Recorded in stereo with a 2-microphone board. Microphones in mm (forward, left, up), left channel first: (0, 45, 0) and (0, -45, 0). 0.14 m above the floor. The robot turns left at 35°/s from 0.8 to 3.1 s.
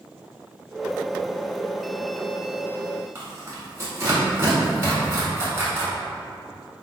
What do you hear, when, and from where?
3.1 s tearing paper: 30° right (ahead or behind), 1.2 m